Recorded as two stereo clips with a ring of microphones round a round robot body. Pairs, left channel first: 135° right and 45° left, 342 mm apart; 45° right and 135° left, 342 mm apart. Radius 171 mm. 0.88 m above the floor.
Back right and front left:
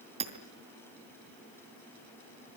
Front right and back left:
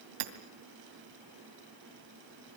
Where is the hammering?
120° left, 2.5 m.